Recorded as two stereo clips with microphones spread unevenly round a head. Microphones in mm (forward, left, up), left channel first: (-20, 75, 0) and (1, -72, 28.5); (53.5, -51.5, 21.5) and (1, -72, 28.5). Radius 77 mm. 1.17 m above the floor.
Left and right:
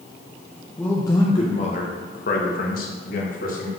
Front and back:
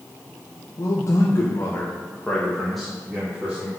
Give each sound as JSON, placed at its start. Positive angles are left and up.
{"t": 0.8, "sound": "a man speaking", "azimuth_deg": 25, "distance_m": 1.6}